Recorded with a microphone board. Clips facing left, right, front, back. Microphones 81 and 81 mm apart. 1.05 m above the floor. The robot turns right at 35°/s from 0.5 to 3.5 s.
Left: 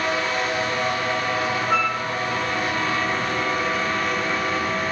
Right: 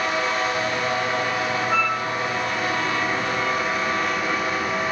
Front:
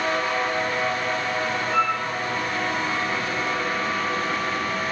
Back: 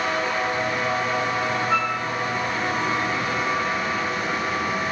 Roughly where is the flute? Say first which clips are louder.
Left 1 dB, front 3 dB; behind.